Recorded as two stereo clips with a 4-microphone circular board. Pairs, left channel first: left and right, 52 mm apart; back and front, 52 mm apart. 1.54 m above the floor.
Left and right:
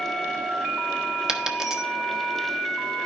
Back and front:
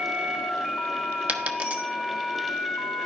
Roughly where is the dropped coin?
Ahead right.